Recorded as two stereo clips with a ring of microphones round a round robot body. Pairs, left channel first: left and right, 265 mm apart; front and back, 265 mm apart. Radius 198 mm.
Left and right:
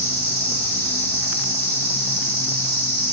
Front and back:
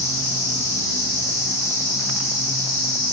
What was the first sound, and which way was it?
An insect, 55° right.